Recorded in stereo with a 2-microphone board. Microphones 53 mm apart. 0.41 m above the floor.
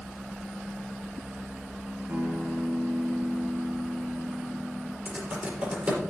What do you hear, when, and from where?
2.1 s a guitar: 35° right (ahead or behind), 2.0 m
5.0 s typing on a keyboard: 25° right (ahead or behind), 5 m